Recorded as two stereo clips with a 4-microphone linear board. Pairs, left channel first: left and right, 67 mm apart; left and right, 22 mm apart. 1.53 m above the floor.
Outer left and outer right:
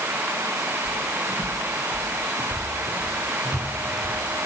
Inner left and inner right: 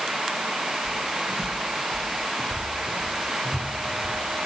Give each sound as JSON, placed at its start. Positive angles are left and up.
{"t": 0.8, "sound": "footsteps", "side_deg": 30, "distance_m": 2.0}